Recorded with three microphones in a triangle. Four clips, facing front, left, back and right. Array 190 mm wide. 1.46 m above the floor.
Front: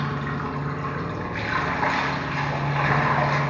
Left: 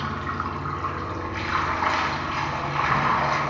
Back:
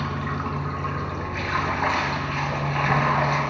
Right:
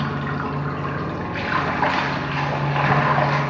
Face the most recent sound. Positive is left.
turn(degrees=-95)